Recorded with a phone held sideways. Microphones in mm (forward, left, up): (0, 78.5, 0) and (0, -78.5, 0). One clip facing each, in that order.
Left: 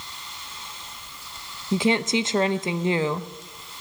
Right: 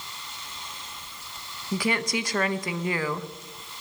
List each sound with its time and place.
1.7 s a woman speaking: 25° left (ahead or behind), 0.7 m